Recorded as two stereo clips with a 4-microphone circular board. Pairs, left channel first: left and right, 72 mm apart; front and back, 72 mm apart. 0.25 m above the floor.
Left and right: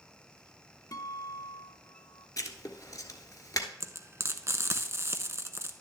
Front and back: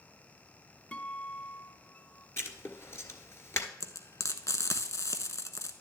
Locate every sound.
0.9 s a guitar: 70° left, 0.8 m
2.4 s writing: 50° left, 1.5 m
3.8 s frying: 40° right, 0.9 m